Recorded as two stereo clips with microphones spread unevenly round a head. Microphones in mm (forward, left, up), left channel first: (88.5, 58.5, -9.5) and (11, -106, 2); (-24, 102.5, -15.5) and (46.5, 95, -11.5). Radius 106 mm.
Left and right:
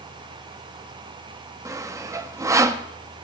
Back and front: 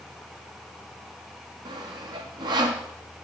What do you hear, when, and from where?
1.6 s sawing: 40° right, 0.6 m